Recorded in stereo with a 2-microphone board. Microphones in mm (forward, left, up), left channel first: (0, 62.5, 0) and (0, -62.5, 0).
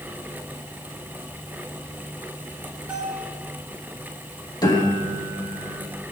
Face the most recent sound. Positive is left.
turn(degrees=30)  # may be behind; listen again after turning